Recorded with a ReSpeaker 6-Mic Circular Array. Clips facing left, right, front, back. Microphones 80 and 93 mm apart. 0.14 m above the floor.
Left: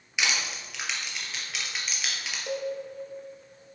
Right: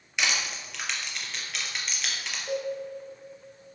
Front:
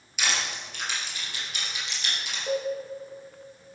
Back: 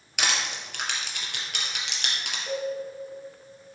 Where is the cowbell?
65° left, 3.5 m.